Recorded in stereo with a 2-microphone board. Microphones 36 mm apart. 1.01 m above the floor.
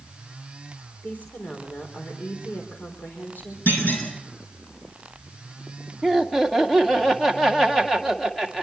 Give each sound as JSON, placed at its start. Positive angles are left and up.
{"t": 1.0, "sound": "a woman speaking", "side_deg": 70, "distance_m": 4.0}
{"t": 3.7, "sound": "a clunk", "side_deg": 75, "distance_m": 6.5}
{"t": 6.0, "sound": "laughter", "side_deg": 5, "distance_m": 2.5}